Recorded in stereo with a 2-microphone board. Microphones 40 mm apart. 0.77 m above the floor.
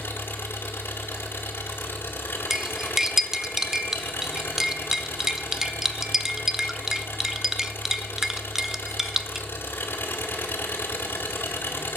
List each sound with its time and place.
0.0 s an engine running: 70° left (ahead or behind), 2 m
2.5 s cutlery clinking: 10° right (ahead or behind), 0.5 m